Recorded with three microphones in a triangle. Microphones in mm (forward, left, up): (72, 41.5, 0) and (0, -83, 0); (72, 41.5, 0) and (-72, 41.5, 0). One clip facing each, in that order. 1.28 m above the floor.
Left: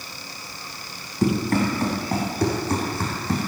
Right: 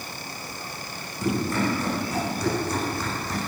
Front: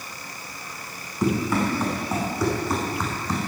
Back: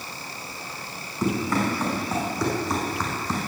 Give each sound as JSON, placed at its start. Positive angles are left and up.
{"t": 1.2, "sound": "running footsteps", "azimuth_deg": 80, "distance_m": 5.5}